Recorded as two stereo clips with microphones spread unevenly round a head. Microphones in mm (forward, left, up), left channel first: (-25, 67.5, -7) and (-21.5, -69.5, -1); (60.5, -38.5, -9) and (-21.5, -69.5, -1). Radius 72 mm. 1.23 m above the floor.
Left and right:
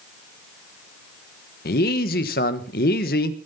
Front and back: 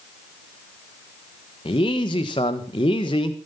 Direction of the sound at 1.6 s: 70° left.